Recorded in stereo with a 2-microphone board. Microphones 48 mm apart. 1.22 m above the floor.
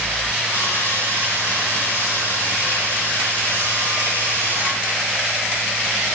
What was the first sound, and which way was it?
Sawing, 65° left (ahead or behind).